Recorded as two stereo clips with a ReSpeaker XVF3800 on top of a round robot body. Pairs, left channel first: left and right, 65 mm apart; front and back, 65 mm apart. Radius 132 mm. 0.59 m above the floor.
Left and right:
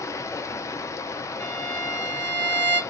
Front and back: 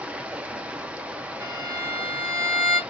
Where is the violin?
150° left, 2 m.